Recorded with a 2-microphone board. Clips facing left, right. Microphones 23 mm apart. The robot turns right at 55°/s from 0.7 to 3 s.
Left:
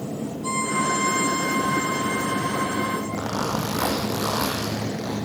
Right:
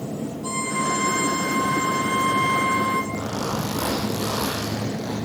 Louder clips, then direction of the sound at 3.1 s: Left 1 dB; 80° left.